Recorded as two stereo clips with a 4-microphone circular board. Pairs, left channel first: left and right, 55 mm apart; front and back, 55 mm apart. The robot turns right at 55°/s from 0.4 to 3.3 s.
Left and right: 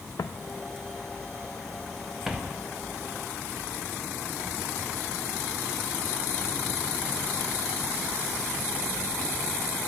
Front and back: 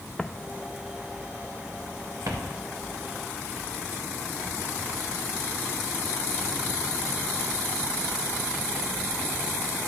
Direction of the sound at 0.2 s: 80° left.